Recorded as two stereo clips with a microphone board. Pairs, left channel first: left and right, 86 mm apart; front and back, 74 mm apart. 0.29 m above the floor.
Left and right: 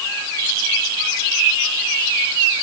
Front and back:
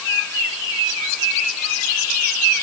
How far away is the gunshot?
I don't hear a gunshot.